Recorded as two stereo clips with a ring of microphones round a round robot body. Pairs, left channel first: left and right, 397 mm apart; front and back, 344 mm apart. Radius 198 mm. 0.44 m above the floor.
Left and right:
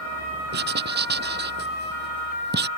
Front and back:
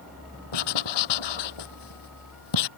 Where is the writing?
25° right.